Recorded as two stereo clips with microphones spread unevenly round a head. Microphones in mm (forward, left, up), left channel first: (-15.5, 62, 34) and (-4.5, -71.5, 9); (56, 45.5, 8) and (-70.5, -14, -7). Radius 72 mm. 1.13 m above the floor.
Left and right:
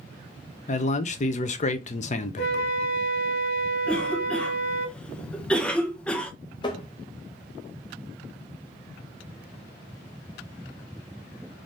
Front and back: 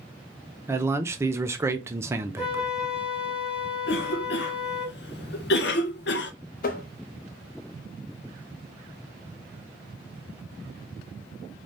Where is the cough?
5° left, 0.8 m.